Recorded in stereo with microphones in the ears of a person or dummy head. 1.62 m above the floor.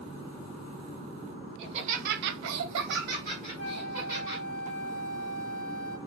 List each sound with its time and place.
1.6 s laughter: 30° right (ahead or behind), 0.8 m; by 4.4 s 25° right (ahead or behind), 1.4 m
3.6 s a flute: 10° left (ahead or behind), 1.7 m